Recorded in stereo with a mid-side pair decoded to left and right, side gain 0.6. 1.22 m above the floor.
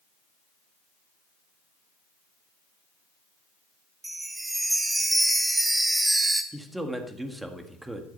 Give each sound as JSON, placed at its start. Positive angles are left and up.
{"t": 4.0, "sound": "a chime", "azimuth_deg": -10, "distance_m": 1.2}
{"t": 6.5, "sound": "a man speaking", "azimuth_deg": -10, "distance_m": 1.8}